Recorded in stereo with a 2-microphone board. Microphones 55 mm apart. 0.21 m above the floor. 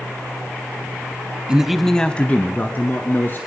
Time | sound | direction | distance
1.5 | a man speaking | 15° right (ahead or behind) | 1.0 m